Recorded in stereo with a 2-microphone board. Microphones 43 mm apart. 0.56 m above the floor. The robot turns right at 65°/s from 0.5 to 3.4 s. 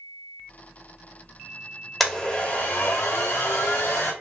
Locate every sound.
2.0 s a blender: straight ahead, 1.3 m; by 4.1 s 90° left, 1.3 m